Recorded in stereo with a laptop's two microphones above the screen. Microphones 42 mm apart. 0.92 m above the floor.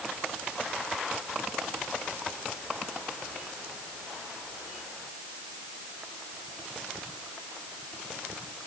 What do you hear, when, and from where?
Only background noise.